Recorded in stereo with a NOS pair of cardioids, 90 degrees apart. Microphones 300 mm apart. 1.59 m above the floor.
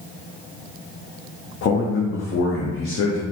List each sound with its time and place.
1.6 s a man speaking: 45° left, 0.8 m